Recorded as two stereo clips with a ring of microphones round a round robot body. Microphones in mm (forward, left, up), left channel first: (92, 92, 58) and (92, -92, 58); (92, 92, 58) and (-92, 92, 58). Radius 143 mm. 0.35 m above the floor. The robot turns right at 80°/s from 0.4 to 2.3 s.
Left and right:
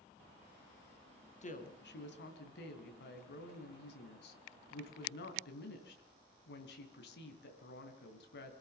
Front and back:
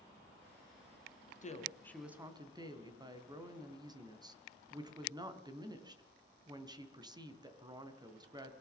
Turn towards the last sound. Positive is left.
turn(degrees=115)